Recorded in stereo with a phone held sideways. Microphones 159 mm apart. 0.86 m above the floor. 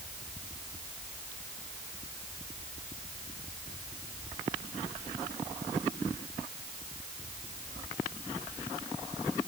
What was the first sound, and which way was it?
Only background noise.